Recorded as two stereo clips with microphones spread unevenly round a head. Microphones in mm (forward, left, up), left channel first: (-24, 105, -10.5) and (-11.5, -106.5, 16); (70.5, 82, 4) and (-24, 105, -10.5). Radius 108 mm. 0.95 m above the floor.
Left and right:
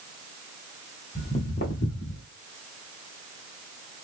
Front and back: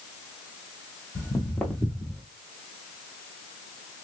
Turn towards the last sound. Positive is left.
turn(degrees=75)